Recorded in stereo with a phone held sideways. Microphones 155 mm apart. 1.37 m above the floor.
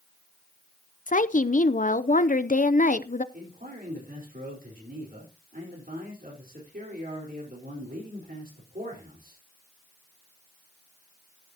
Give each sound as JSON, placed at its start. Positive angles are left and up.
{"t": 1.1, "sound": "a woman speaking", "side_deg": 55, "distance_m": 0.6}
{"t": 3.3, "sound": "a man speaking", "side_deg": -65, "distance_m": 4.5}